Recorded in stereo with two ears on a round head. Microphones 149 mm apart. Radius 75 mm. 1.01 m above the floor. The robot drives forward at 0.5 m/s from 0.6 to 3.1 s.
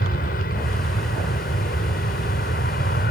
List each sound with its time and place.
0.0 s an aircraft: 55° left (ahead or behind)